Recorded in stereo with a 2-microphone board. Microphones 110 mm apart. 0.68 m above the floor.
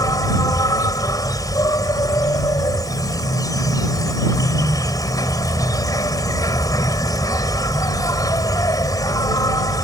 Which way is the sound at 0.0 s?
35° left (ahead or behind).